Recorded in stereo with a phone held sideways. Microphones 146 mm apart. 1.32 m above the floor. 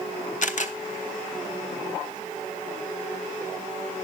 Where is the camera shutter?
60° left (ahead or behind), 0.8 m.